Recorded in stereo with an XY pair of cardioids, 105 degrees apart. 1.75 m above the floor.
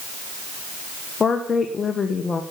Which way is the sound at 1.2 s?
30° left.